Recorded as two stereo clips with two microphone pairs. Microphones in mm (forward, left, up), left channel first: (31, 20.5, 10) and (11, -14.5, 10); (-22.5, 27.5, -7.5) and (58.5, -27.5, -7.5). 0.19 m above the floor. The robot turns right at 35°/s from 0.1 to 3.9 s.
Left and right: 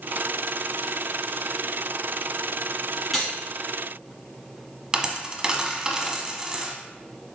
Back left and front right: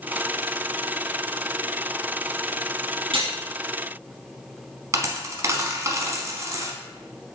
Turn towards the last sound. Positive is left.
turn(degrees=-65)